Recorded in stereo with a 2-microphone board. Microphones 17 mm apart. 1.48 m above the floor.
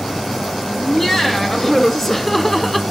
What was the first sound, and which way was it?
Laughter, 15° left (ahead or behind).